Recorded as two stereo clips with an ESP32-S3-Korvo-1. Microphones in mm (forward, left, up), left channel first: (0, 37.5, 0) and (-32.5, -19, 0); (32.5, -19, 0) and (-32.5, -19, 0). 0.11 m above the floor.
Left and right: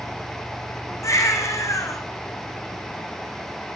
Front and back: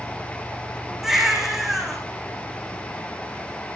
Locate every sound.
1.0 s a baby crying: 95° left, 5 m